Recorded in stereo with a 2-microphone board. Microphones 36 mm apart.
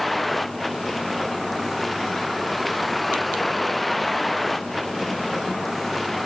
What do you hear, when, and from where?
0.0 s a vehicle: 5° left (ahead or behind)